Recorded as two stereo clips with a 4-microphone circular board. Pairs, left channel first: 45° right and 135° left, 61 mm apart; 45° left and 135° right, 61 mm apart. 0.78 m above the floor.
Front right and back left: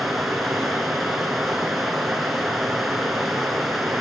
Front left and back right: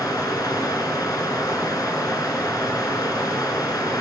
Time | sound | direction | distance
0.0 | running water | 45° left | 3 m